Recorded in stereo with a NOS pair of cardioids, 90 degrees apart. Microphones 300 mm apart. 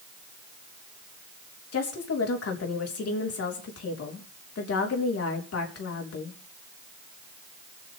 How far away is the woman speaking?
About 4 m.